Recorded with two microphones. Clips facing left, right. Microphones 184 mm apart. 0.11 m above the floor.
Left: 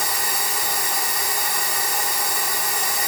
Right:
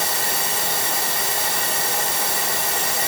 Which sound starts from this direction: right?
Running water, at 0.0 s.